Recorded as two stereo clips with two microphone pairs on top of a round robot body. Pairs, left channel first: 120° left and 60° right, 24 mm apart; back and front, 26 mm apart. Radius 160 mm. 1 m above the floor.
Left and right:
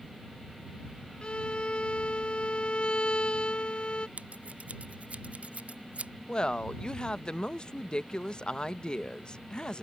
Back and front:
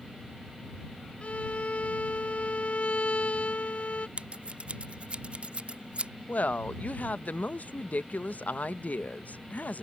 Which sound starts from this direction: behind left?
A violin, at 1.2 s.